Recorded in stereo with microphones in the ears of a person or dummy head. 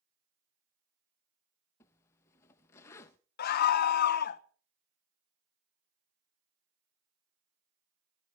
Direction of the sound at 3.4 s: 55° left (ahead or behind).